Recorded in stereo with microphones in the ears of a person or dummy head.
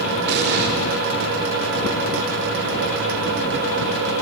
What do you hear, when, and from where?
0.3 s an explosion: 50° right (ahead or behind), 2.5 m